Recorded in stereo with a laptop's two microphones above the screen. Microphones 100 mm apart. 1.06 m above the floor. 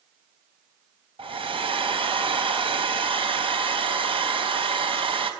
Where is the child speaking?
I don't hear a child speaking.